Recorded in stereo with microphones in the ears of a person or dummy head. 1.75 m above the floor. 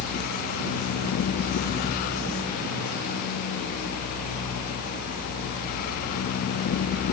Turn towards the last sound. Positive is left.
No sound to turn to.